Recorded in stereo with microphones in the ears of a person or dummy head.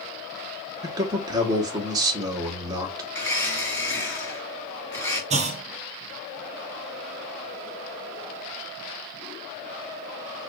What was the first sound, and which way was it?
A man speaking, 20° right (ahead or behind).